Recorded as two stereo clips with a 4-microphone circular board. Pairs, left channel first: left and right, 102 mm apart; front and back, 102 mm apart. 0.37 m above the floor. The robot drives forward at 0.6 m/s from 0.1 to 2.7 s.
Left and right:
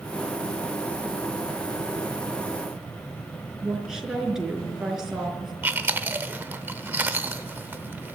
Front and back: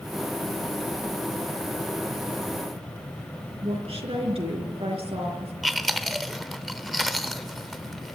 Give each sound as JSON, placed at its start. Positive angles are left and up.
{"t": 3.6, "sound": "a woman speaking", "azimuth_deg": -175, "distance_m": 4.0}
{"t": 5.6, "sound": "chewing", "azimuth_deg": -90, "distance_m": 1.1}